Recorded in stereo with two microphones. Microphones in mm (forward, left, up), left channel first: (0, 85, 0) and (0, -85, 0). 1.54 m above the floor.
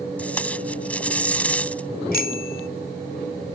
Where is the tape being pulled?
10° left (ahead or behind).